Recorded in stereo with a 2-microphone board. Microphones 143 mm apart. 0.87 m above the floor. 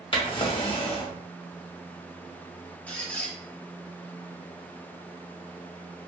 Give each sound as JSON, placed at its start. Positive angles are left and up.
{"t": 0.1, "sound": "a drawer", "side_deg": 40, "distance_m": 0.5}
{"t": 2.9, "sound": "a squeak", "side_deg": 10, "distance_m": 0.6}